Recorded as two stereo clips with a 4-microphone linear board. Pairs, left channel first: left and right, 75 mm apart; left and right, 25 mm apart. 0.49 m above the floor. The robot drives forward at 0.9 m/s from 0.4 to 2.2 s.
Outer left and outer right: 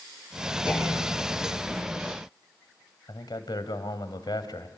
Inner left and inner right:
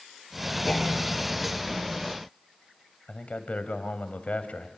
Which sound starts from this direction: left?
A man speaking, at 3.1 s.